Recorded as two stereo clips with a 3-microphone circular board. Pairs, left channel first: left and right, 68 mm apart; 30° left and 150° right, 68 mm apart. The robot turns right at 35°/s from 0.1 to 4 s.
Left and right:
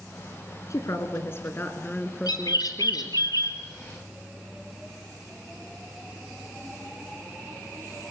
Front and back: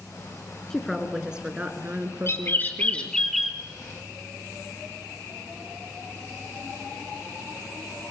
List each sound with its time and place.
0.7 s a woman speaking: 115° left, 2 m; by 3.2 s 160° right, 2 m
2.3 s a bird: 80° left, 3 m; by 3.6 s 125° left, 3 m